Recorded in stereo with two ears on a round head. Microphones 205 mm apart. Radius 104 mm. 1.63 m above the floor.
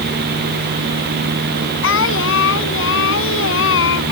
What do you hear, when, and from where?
1.8 s singing: 65° left (ahead or behind)